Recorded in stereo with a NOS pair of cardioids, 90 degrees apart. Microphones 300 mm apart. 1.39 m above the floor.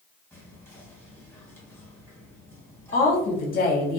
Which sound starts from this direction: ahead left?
A woman speaking, at 2.9 s.